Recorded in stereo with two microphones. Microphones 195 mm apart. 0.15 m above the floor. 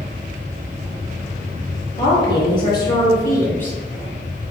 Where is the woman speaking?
25° left (ahead or behind), 2.0 m; by 3.8 s 10° left (ahead or behind), 1.3 m.